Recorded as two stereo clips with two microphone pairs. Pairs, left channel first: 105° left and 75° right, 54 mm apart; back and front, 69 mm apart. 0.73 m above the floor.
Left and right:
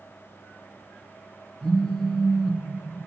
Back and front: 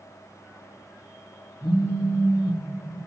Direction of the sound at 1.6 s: 175° right.